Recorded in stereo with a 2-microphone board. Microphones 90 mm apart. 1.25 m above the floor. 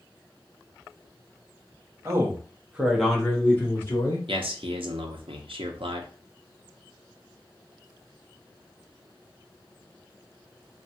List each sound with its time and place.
2.0 s a man speaking: 35° right (ahead or behind), 1.0 m; by 4.3 s 35° left (ahead or behind), 1.1 m
4.3 s a man speaking: 80° right, 0.7 m